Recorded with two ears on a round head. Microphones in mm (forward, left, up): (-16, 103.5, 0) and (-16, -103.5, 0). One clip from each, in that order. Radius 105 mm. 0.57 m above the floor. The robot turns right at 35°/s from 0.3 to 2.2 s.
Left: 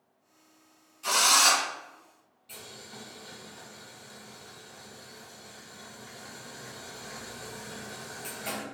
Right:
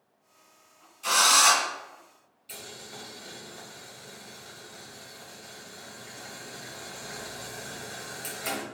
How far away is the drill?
About 1.4 m.